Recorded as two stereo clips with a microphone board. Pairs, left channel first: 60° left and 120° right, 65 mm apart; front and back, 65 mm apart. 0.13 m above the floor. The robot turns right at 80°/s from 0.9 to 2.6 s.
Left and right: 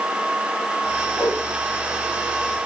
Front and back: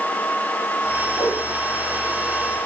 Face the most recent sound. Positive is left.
turn(degrees=120)